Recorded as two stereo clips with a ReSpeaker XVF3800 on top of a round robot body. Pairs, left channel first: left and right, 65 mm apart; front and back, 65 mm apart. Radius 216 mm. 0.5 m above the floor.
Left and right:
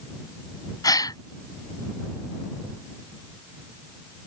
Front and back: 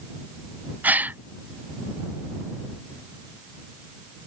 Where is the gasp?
115° left.